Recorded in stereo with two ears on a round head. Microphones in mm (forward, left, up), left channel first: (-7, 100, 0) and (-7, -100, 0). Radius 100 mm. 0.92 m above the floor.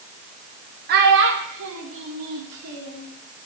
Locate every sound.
0.9 s a child speaking: 45° right (ahead or behind), 0.7 m; by 3.0 s 80° right, 1.8 m